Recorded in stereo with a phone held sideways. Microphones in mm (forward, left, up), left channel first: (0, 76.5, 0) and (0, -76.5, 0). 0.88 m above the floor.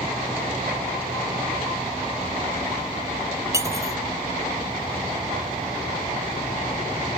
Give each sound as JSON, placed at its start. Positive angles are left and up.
{"t": 3.5, "sound": "cutlery clinking", "side_deg": -20}